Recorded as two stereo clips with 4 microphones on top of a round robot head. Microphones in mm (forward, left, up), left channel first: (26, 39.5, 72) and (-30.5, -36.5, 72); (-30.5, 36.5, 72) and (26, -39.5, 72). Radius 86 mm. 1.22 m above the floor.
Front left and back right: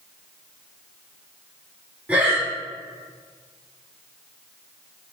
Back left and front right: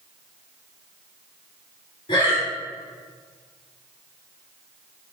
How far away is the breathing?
About 2.5 m.